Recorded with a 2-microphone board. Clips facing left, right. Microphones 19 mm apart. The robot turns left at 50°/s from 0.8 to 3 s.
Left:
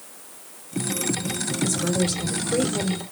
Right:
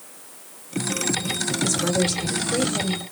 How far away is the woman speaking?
About 1.6 m.